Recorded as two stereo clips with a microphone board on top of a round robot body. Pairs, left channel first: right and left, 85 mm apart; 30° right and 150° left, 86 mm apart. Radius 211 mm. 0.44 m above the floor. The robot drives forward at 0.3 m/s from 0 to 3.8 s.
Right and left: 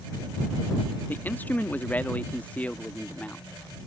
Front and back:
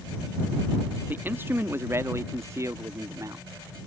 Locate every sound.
1.1 s a man speaking: 150° right; by 3.9 s 165° right